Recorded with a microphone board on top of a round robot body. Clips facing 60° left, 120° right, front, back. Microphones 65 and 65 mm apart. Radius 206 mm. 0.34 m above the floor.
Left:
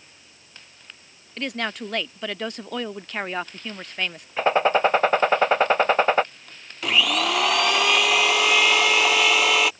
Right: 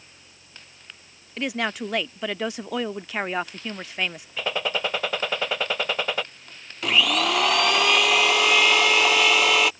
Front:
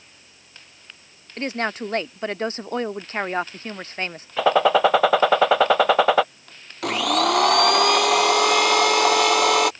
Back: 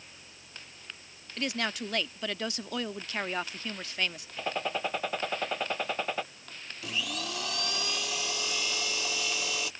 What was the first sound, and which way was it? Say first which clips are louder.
A woman speaking: right 2 dB, front 7 dB; 40° right.